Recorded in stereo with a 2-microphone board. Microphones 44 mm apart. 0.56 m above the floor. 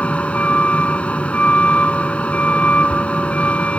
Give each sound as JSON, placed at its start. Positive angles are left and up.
{"t": 0.0, "sound": "a vehicle", "side_deg": 30}